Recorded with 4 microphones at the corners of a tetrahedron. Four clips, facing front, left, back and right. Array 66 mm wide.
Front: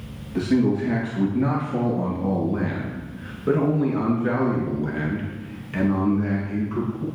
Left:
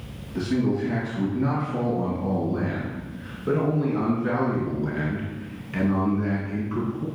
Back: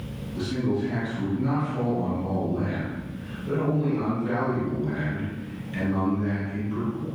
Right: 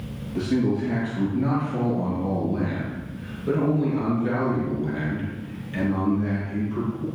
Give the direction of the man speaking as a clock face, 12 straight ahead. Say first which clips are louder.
Right 1 dB, front 6 dB; 12 o'clock.